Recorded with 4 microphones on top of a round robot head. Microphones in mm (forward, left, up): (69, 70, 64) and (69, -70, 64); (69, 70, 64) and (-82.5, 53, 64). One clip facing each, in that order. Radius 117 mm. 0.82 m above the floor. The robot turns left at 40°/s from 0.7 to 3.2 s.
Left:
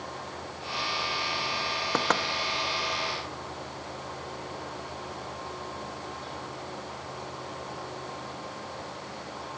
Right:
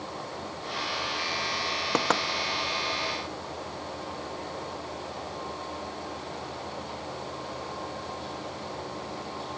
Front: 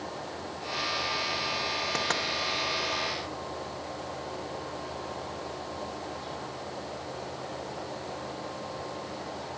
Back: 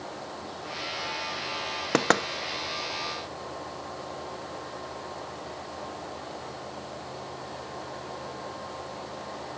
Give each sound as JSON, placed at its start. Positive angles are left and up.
{"t": 1.9, "sound": "knocking", "azimuth_deg": -165, "distance_m": 0.7}